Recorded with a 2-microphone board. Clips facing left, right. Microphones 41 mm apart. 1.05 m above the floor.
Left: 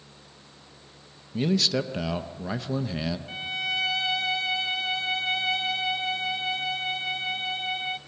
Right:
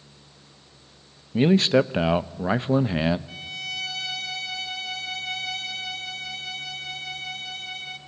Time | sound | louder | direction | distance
1.3 | a man speaking | right 7 dB | 35° right (ahead or behind) | 0.6 m
3.3 | a violin | left 4 dB | 30° left (ahead or behind) | 1.6 m